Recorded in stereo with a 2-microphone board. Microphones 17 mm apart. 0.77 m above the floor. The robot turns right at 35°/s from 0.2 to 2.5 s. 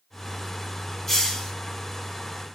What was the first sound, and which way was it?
A hiss, 30° left (ahead or behind).